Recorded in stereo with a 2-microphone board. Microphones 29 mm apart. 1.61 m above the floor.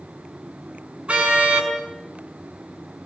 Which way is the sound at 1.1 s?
50° right (ahead or behind).